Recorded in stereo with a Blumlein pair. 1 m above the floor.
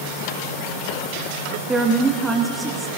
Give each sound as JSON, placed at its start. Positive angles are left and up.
{"t": 1.7, "sound": "a woman speaking", "azimuth_deg": -15, "distance_m": 1.1}